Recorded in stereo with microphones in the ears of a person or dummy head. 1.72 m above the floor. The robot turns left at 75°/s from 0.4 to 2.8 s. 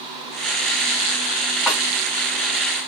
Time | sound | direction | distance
1.7 | a snare drum | 10° right (ahead or behind) | 2 m